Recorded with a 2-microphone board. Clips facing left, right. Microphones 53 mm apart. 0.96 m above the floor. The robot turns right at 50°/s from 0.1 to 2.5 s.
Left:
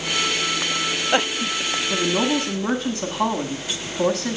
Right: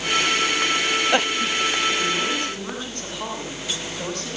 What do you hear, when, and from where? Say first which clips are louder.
1.9 s a woman speaking: left 2 dB; 70° left, 8 m; by 4.4 s 100° left, 8 m